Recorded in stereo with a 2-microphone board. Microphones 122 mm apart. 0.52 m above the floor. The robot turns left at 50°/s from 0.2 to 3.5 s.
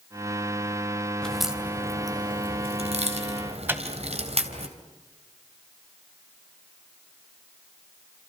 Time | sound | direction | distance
1.2 | a crack | 5° left (ahead or behind) | 3 m
3.7 | a microwave | 20° right (ahead or behind) | 2 m